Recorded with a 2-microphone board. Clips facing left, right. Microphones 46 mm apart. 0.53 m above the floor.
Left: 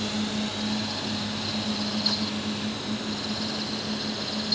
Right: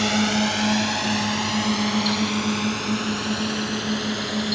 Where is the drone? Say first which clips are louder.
Right 8 dB; 65° right (ahead or behind); by 4.5 s 60° right (ahead or behind).